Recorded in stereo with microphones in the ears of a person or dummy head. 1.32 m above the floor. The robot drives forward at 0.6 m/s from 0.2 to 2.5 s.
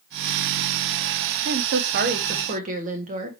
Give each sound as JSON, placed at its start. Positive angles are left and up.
{"t": 1.4, "sound": "a woman speaking", "side_deg": -65, "distance_m": 0.7}